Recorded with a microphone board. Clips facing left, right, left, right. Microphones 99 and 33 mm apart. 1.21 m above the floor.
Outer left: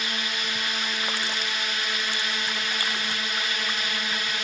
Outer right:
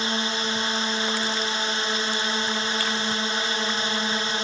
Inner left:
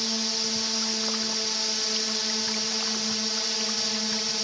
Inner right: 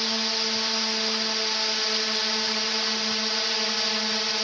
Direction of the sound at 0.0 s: 30° right (ahead or behind).